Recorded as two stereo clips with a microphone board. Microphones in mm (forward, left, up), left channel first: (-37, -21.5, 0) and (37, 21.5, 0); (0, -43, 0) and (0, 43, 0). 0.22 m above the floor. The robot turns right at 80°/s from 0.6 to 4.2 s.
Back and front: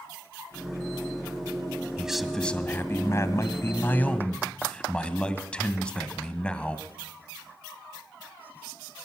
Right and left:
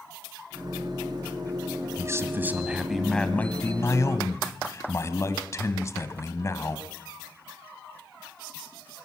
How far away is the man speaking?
About 1.7 m.